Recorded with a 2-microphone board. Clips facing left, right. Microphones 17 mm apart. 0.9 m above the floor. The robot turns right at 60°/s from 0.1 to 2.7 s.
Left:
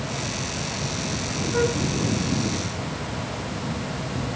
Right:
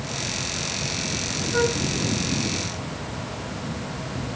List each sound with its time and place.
1.5 s a flute: 10° right (ahead or behind), 1.0 m; by 1.8 s 5° left (ahead or behind), 1.0 m